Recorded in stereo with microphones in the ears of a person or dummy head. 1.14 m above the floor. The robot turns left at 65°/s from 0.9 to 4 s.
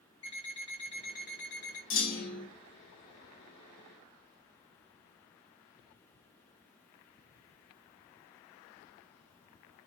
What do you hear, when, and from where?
0.2 s an alarm clock: 150° left, 1.5 m; by 1.8 s 95° left, 1.5 m
1.9 s a clunk: 110° left, 1.1 m; by 2.5 s 70° left, 1.1 m